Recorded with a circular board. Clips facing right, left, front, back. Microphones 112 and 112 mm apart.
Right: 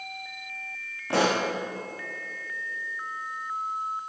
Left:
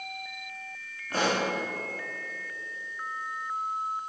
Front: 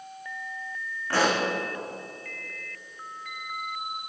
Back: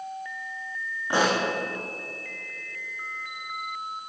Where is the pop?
105° right, 5.5 m.